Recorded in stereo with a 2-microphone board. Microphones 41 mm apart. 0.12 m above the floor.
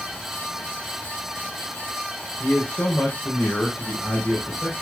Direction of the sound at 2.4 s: 45° left (ahead or behind).